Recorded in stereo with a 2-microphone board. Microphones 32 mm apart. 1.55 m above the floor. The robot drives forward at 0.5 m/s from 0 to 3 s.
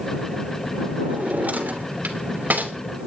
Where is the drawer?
55° right (ahead or behind), 3 m; by 2.7 s 70° right (ahead or behind), 2.5 m.